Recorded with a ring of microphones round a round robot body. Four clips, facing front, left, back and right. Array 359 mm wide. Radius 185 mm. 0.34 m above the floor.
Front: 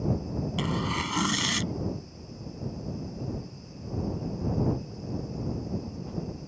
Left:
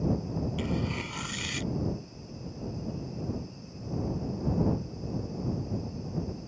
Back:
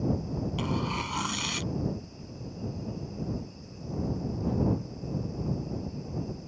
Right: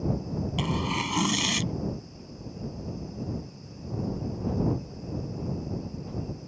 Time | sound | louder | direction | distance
0.6 | tearing paper | right 3 dB, front 2 dB | 60° right | ?